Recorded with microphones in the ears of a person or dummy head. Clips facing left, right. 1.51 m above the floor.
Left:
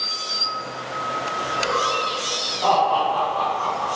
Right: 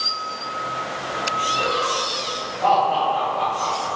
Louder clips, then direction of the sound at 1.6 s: Even; 35° right (ahead or behind).